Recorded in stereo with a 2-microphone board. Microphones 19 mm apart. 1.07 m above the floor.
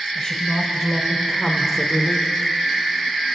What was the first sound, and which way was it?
A woman speaking, 20° left (ahead or behind).